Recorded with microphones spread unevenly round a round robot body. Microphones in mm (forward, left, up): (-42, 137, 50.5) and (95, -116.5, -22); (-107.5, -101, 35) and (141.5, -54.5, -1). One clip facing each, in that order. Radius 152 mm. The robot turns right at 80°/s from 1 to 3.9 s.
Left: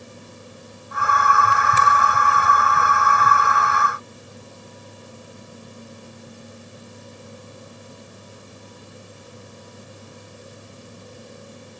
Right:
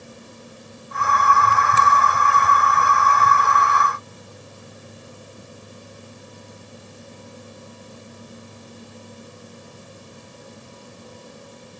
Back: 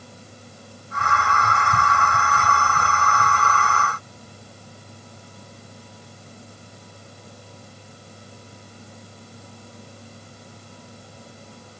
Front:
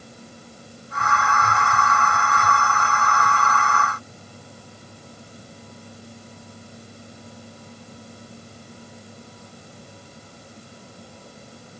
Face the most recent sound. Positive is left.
No sound to turn to.